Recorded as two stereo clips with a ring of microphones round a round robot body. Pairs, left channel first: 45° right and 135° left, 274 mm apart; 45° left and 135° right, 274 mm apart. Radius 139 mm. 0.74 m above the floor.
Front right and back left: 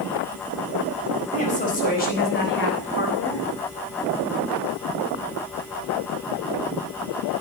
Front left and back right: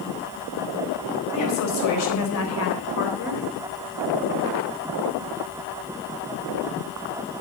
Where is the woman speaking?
20° left, 4.5 m; by 3.5 s 5° right, 3 m.